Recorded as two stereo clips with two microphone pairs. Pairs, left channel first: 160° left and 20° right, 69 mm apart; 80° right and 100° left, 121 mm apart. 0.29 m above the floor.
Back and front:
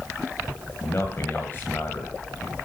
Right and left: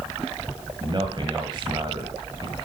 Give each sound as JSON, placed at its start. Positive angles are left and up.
{"t": 0.8, "sound": "a man speaking", "azimuth_deg": 120, "distance_m": 1.9}